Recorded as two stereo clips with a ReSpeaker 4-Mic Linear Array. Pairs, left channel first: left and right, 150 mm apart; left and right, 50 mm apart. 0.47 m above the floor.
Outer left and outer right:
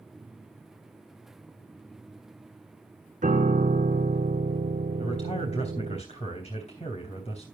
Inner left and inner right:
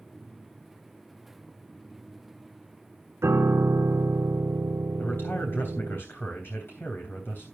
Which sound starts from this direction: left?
A man speaking, at 5.0 s.